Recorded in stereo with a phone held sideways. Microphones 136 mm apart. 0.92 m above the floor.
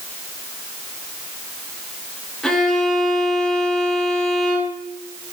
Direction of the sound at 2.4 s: 5° left (ahead or behind).